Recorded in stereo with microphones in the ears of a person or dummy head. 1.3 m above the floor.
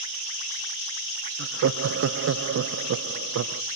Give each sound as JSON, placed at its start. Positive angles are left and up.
{"t": 1.4, "sound": "laughter", "side_deg": -80, "distance_m": 0.5}